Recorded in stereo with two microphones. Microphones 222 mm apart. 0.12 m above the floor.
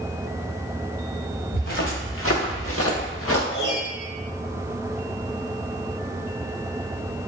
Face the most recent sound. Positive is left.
turn(degrees=65)  # may be behind; listen again after turning